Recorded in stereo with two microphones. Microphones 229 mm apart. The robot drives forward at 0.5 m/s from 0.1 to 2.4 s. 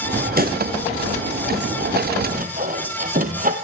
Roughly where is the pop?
Right.